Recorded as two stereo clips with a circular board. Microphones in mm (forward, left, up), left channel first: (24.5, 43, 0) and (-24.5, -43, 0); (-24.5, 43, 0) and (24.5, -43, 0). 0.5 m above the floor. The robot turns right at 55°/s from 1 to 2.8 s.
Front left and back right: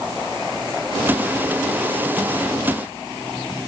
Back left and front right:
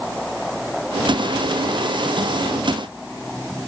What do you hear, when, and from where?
Only background noise.